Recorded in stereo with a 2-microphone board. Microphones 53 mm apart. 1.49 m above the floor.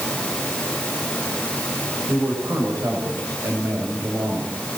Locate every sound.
2.1 s a man speaking: 80° right, 8.5 m